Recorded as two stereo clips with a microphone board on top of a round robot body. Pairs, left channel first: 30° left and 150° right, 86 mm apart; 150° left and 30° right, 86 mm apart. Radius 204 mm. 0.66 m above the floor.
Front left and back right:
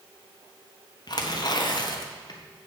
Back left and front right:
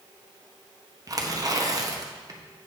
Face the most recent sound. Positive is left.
turn(degrees=5)